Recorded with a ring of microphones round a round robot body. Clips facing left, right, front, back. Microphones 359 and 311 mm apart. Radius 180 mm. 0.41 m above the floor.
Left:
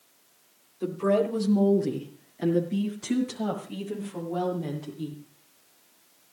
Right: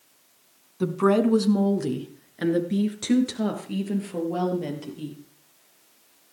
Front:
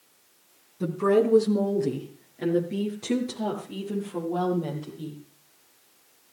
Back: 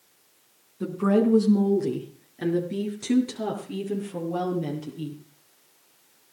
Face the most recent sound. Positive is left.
turn(degrees=-120)